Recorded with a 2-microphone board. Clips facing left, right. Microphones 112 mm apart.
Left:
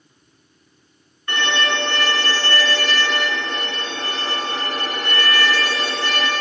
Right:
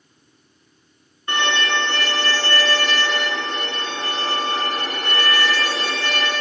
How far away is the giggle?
I don't hear a giggle.